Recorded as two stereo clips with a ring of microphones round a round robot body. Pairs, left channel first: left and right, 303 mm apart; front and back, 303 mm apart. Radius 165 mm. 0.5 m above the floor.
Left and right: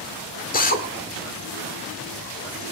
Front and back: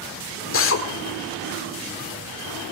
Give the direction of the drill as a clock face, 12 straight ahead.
11 o'clock.